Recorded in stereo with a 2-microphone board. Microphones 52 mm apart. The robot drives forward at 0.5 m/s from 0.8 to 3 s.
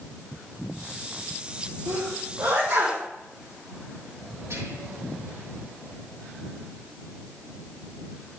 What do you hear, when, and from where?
1.9 s a sneeze: 65° right (ahead or behind), 3.5 m
4.5 s whispering: 75° right (ahead or behind), 5.5 m